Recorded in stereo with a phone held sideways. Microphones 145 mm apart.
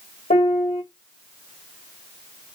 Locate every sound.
0.3 s a piano: 75° left (ahead or behind), 2.5 m